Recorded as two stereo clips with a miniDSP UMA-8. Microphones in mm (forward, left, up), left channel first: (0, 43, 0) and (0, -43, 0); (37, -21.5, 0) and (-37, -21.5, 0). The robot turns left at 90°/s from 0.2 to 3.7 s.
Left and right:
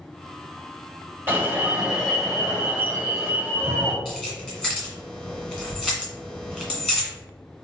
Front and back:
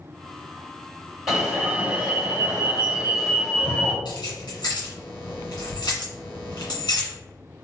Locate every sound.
1.3 s an alarm: 95° right, 1.6 m; by 4.0 s 45° left, 1.6 m
4.0 s keys jangling: 5° left, 1.8 m